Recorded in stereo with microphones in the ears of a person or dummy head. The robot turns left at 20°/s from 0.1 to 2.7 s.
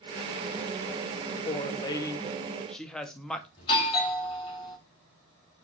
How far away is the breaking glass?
I don't hear breaking glass.